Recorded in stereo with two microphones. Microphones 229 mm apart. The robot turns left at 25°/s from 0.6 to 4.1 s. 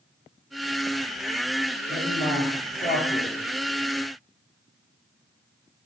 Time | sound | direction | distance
1.9 | a man speaking | 170° left | 5.5 m